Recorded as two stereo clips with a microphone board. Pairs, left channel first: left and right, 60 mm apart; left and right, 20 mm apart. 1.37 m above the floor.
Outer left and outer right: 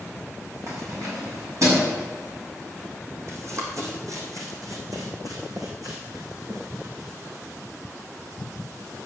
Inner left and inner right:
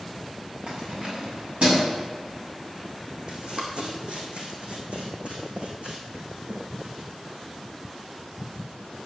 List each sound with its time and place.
0.7 s keys jangling: 55° right (ahead or behind), 4.5 m; by 1.9 s 60° right (ahead or behind), 6.5 m
3.3 s running footsteps: 50° right (ahead or behind), 3.5 m; by 7.1 s 75° right (ahead or behind), 4.5 m